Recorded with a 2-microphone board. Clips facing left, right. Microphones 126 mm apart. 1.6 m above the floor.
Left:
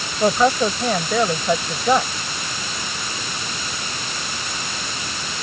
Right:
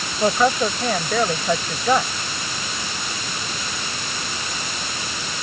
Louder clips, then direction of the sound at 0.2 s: Left 2 dB; 5° left (ahead or behind).